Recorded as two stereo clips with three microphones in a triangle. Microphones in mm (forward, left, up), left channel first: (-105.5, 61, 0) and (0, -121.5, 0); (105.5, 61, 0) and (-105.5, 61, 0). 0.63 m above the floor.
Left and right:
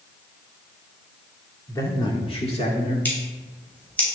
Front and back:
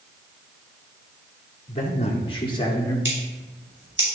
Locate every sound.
1.7 s a man speaking: 45° left, 1.4 m; by 3.0 s 70° left, 1.8 m
3.0 s scissors: 160° right, 3 m